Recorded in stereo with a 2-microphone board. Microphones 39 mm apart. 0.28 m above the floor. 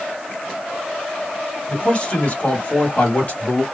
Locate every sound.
1.7 s a man speaking: 30° left (ahead or behind), 1.6 m; by 3.6 s 45° left (ahead or behind), 1.7 m